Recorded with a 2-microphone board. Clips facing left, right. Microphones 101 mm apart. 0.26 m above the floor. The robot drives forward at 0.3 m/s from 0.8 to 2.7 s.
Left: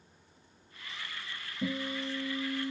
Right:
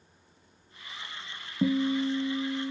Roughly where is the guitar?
Right.